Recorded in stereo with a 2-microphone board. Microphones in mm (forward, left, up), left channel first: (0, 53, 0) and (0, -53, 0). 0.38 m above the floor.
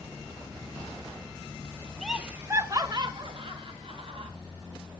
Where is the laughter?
Centre (ahead or behind), 0.9 m; by 4.3 s 65° right (ahead or behind), 2 m.